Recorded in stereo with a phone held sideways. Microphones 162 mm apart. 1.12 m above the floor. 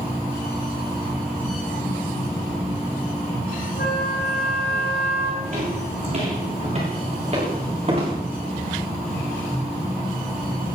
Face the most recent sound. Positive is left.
turn(degrees=-40)  # may be behind; listen again after turning